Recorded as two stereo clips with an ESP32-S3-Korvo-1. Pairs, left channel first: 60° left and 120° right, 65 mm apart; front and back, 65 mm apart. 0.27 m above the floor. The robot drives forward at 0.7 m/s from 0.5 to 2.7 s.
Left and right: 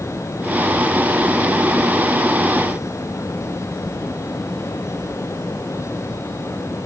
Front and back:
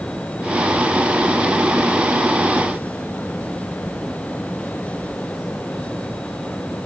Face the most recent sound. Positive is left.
No sound to turn to.